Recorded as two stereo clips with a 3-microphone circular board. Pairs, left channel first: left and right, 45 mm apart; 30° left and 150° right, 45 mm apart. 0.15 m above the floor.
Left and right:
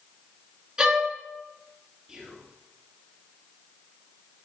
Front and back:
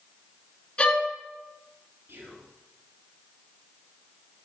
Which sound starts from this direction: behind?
Whispering, at 2.1 s.